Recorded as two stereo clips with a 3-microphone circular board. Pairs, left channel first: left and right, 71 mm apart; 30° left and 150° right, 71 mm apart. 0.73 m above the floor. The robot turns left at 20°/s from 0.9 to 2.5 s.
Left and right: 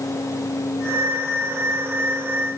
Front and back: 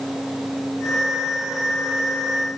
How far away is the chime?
I don't hear a chime.